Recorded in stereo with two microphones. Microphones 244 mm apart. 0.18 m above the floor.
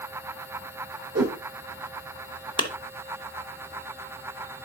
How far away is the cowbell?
I don't hear a cowbell.